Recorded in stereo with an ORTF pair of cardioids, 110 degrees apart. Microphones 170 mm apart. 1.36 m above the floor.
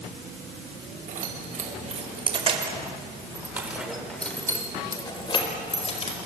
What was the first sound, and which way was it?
Keys jangling, 50° right.